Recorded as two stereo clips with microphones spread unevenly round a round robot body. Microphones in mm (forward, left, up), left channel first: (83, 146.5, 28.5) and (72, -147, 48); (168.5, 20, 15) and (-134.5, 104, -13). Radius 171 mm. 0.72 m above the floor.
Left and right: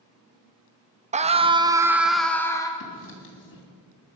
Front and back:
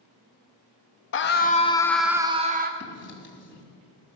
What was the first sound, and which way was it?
A scream, 35° right.